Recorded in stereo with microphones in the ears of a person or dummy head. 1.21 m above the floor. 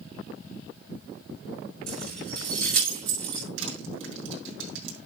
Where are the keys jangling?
60° right (ahead or behind), 5.5 m; by 3.5 s 50° right (ahead or behind), 5.5 m.